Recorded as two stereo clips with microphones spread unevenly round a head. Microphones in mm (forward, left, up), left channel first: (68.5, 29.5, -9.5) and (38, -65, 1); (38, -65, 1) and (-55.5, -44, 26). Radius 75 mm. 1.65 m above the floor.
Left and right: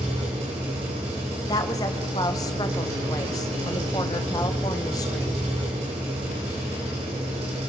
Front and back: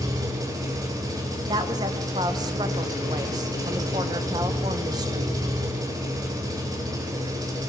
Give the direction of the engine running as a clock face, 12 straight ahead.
5 o'clock.